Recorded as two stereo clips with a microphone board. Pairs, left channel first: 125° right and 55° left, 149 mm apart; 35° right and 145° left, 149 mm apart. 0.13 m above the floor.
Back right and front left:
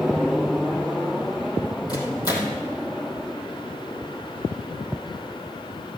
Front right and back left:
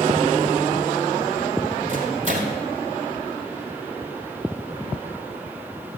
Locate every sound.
1.9 s a microwave: 175° left, 3 m